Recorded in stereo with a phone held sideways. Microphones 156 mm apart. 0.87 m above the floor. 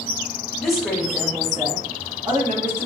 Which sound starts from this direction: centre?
A woman speaking, at 0.6 s.